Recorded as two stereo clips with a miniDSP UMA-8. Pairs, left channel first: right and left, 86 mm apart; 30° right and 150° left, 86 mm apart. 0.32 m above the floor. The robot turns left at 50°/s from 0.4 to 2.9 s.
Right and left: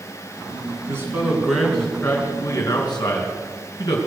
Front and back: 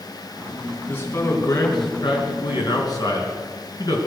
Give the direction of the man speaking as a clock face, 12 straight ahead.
11 o'clock.